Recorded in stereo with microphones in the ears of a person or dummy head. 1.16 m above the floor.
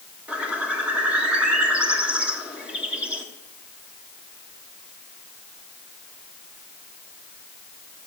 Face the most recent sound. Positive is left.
turn(degrees=-5)  # may be behind; listen again after turning